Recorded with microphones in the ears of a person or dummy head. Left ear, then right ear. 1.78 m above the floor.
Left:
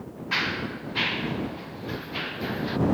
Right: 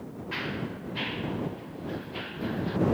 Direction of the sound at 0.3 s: 30° left (ahead or behind).